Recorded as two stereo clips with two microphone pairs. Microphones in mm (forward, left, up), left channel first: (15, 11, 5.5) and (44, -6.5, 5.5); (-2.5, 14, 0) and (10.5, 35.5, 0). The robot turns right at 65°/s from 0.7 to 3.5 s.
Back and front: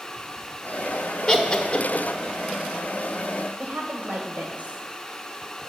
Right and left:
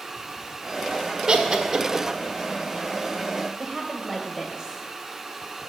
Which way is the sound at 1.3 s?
110° left.